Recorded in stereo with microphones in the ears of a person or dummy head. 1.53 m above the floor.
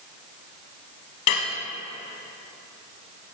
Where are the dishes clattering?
35° left (ahead or behind), 0.8 m.